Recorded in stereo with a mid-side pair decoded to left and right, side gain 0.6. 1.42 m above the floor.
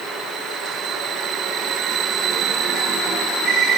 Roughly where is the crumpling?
No crumpling in this recording.